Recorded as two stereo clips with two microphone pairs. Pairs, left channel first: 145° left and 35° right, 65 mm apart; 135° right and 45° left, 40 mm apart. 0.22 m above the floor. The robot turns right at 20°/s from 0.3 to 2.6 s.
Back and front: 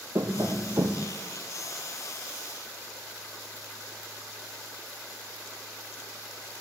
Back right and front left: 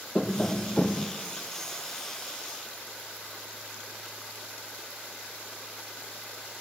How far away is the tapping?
About 1.4 m.